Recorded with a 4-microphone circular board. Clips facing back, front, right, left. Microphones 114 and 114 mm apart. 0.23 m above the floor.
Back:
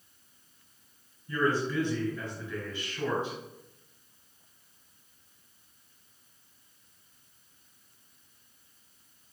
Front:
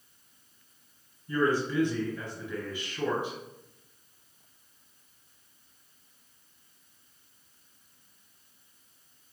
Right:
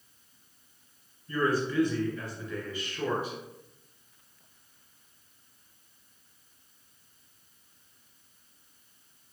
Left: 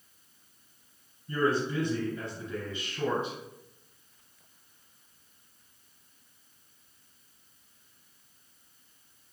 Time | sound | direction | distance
1.3 | a man speaking | 60° left | 1.6 m